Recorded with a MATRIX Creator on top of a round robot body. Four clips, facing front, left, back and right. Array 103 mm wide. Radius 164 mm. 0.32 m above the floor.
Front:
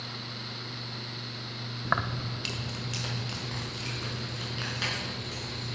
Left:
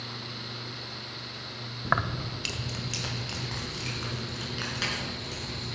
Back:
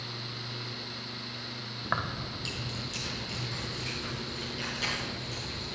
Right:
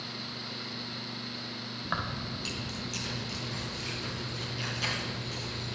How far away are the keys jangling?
About 0.7 m.